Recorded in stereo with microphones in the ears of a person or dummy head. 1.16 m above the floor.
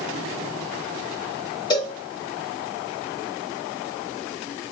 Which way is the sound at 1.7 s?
15° left (ahead or behind).